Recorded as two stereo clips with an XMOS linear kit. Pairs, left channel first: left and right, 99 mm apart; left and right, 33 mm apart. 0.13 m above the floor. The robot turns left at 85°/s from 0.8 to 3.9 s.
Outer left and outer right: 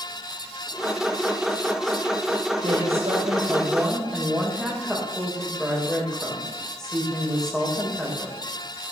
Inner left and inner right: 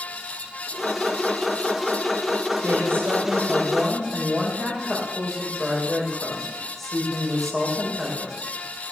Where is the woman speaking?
75° right, 8 m; by 8.4 s 175° left, 8 m.